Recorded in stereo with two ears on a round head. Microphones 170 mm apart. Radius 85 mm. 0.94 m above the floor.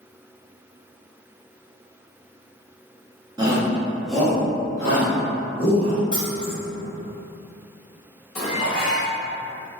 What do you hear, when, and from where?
3.4 s a shout: 20° right (ahead or behind), 0.8 m; by 6.0 s 35° left (ahead or behind), 1.4 m
6.1 s keys jangling: 50° left (ahead or behind), 1.6 m
8.3 s dishes clattering: 40° left (ahead or behind), 1.8 m